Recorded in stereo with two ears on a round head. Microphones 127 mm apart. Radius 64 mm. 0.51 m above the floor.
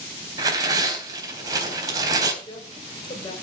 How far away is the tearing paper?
About 3.5 m.